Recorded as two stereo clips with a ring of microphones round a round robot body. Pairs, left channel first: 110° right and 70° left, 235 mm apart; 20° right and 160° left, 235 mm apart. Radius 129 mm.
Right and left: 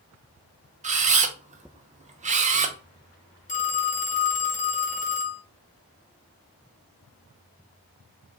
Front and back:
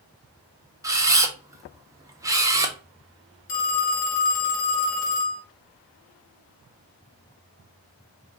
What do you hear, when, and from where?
0.8 s a camera shutter: 90° left, 0.7 m
3.5 s a phone ringing: 55° right, 1.1 m